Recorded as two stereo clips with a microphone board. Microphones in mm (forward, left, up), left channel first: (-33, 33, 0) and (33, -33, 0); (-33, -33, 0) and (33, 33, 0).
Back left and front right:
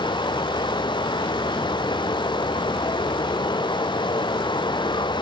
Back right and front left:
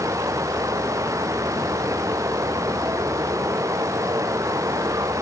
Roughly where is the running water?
Left.